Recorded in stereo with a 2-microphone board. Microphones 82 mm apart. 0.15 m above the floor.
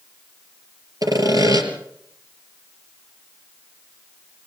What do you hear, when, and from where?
1.0 s sawing: 50° right (ahead or behind), 3 m